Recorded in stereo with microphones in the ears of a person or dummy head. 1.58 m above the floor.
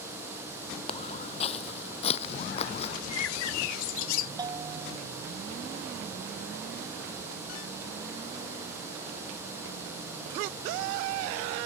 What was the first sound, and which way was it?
Footsteps, 35° left (ahead or behind).